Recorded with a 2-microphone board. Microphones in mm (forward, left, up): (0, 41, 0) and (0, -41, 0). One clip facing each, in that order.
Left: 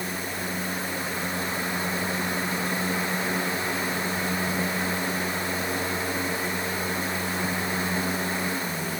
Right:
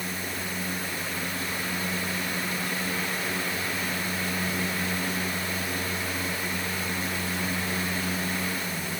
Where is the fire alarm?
No fire alarm in this recording.